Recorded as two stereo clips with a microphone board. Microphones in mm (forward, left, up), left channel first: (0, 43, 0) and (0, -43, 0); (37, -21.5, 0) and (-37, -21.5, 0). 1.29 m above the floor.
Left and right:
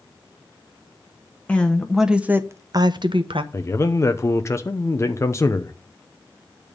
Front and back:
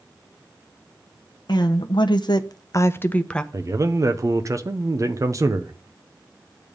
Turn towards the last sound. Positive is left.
turn(degrees=145)